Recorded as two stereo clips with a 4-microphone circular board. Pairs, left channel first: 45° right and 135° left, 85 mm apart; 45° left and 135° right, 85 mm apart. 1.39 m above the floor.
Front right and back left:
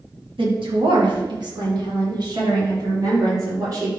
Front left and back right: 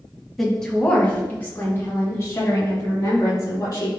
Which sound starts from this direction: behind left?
A woman speaking, at 0.4 s.